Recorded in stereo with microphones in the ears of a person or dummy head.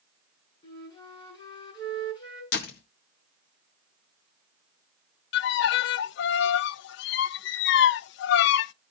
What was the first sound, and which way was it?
A flute, 30° left (ahead or behind).